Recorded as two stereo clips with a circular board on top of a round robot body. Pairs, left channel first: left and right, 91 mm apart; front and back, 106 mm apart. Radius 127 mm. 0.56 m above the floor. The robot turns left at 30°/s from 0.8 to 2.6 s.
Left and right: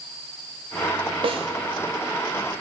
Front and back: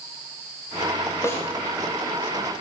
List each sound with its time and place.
1.2 s a snare drum: 65° right, 0.8 m; by 1.5 s 75° right, 0.8 m